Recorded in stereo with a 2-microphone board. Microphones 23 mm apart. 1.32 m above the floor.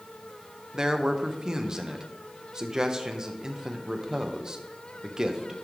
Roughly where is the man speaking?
Right.